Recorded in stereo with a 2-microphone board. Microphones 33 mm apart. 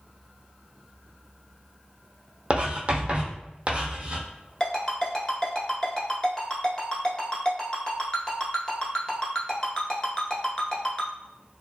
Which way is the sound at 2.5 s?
40° right (ahead or behind).